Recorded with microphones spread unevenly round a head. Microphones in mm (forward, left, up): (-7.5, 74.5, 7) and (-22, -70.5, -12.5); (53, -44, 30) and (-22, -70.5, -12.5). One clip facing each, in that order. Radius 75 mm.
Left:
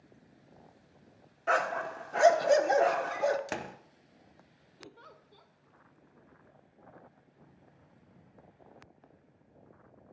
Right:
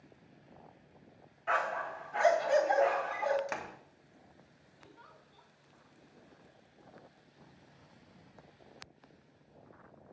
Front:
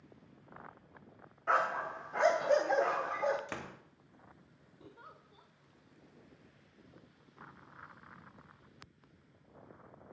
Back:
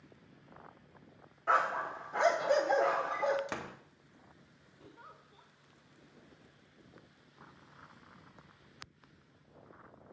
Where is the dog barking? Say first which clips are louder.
Left 4 dB, back 1 dB; 100° left, 0.8 m.